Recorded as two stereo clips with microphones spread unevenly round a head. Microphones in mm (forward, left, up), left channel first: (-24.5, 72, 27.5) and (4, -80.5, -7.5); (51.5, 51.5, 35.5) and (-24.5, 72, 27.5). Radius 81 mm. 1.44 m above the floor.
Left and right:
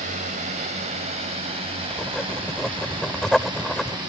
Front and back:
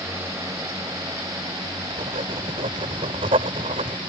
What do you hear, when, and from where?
0.0 s a drone: 125° right; by 4.1 s 145° right
1.9 s writing: 175° right